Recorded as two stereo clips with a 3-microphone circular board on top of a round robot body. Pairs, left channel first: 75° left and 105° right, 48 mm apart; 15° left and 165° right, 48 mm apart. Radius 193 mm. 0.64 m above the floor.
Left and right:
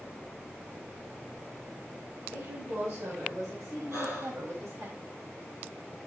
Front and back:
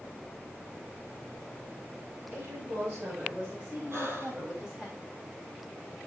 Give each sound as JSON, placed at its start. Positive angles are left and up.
{"t": 2.3, "sound": "a woman speaking", "azimuth_deg": -115, "distance_m": 6.0}
{"t": 3.9, "sound": "breathing", "azimuth_deg": -130, "distance_m": 4.0}